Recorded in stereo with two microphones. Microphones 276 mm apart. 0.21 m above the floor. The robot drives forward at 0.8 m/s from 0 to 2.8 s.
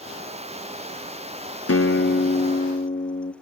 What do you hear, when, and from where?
1.7 s a guitar: 55° left (ahead or behind), 0.8 m; by 3.3 s 25° left (ahead or behind), 1.5 m